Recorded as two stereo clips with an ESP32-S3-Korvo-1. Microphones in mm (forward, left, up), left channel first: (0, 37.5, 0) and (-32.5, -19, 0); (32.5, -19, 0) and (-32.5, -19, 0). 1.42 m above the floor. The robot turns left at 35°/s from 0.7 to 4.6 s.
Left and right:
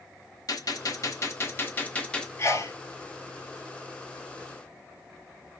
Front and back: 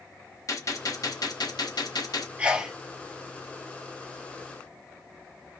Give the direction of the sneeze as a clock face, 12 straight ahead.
8 o'clock.